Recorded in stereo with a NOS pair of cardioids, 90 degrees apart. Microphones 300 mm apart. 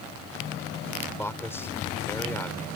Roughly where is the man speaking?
Ahead.